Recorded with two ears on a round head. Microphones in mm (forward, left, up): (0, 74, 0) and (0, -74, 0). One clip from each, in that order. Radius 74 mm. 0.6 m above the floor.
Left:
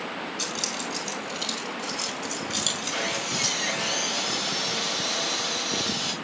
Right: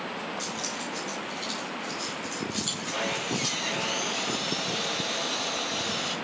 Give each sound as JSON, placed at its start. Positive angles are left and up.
{"t": 0.4, "sound": "keys jangling", "side_deg": 55, "distance_m": 3.0}
{"t": 2.9, "sound": "sawing", "side_deg": 55, "distance_m": 5.5}